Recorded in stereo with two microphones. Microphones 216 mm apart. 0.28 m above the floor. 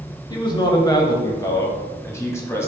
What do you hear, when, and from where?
0.3 s a man speaking: 20° left (ahead or behind), 1.0 m; by 2.7 s 10° left (ahead or behind), 1.7 m